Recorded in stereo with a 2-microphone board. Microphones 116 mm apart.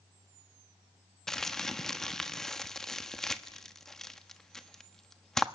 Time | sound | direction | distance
1.3 | crumpling | 5° left (ahead or behind) | 1.2 m